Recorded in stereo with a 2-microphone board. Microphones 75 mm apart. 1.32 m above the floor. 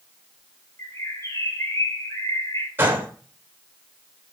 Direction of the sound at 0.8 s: 40° left (ahead or behind).